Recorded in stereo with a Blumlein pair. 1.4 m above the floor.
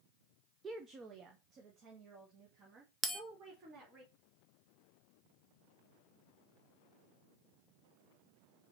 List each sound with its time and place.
0.6 s a woman speaking: 15° right, 0.5 m; by 4.0 s 35° right, 3 m
3.0 s a bell: 15° right, 0.9 m